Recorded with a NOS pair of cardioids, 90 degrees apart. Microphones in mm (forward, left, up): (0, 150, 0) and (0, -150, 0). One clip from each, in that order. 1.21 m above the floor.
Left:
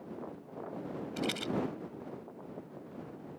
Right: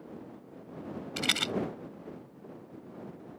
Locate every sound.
1.2 s a rattle: 70° right